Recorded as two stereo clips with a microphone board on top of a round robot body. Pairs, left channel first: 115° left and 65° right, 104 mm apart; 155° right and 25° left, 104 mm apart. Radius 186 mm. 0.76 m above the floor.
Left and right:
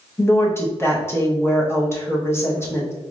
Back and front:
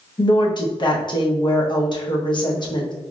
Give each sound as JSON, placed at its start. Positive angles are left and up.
{"t": 0.2, "sound": "a woman speaking", "azimuth_deg": 175, "distance_m": 1.1}